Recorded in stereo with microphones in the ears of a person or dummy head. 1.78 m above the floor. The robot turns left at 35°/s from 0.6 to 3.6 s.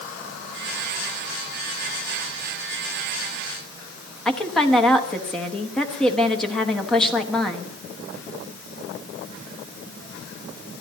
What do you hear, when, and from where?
4.2 s a woman speaking: centre (ahead or behind), 1.1 m